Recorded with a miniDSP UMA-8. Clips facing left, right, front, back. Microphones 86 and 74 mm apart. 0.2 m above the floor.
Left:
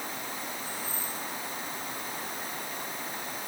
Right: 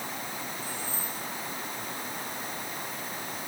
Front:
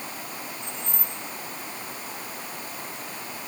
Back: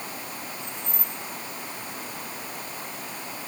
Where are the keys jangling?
100° right, 8 m.